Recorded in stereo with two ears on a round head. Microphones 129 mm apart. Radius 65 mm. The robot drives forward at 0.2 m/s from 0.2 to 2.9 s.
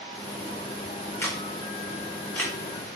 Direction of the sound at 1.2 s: 15° left (ahead or behind).